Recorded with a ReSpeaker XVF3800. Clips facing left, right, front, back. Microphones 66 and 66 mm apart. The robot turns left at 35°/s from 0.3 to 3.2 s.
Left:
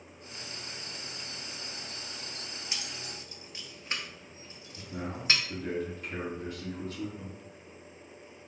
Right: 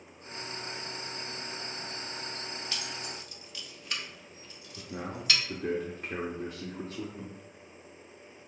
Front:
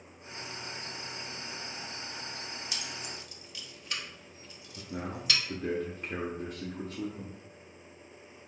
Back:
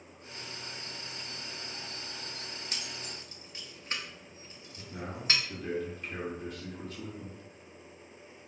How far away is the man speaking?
About 0.8 m.